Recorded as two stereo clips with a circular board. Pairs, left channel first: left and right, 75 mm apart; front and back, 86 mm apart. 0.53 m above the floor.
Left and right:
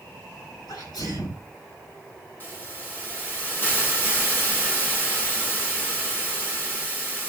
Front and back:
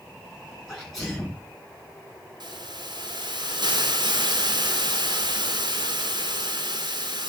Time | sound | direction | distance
0.7 | a sneeze | 85° left | 7 m
2.4 | a hiss | 155° left | 2.5 m